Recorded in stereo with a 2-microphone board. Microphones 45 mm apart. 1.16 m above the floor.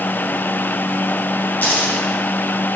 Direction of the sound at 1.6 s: 40° left (ahead or behind).